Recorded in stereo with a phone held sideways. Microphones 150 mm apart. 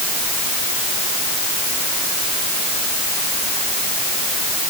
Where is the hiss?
I don't hear a hiss.